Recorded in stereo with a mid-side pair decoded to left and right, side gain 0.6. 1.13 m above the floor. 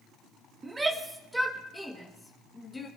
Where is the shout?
15° right, 1.5 m; by 2.9 s 25° left, 1.7 m.